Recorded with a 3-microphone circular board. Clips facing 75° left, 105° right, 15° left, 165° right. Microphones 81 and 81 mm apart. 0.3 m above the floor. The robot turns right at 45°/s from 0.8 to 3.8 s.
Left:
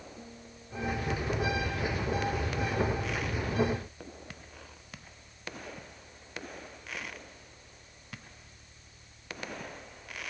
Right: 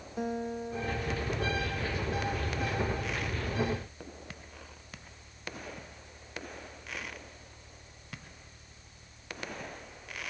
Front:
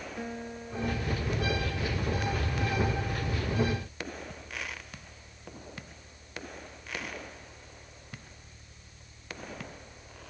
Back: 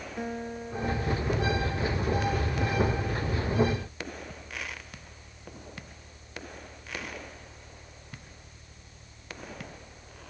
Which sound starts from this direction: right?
A guitar, at 0.2 s.